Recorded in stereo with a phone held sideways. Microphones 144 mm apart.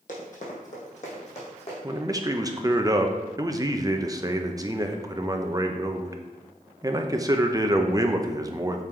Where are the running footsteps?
60° left (ahead or behind), 2 m; by 1.7 s 45° left (ahead or behind), 3 m.